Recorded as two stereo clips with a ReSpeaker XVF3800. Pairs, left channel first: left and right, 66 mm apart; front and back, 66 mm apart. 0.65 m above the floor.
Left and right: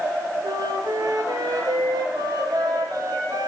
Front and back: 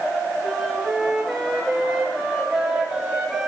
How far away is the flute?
About 8.5 m.